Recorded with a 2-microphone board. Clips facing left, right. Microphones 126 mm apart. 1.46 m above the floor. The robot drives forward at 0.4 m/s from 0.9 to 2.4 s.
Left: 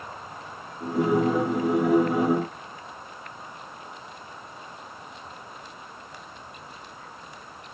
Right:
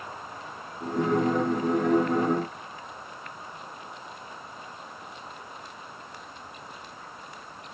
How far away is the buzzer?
No buzzer in this recording.